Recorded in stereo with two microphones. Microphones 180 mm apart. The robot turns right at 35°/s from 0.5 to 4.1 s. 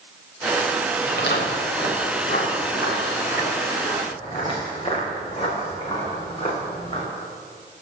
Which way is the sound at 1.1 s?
60° left (ahead or behind).